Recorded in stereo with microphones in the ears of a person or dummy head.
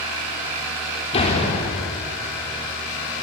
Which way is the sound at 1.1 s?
30° left (ahead or behind).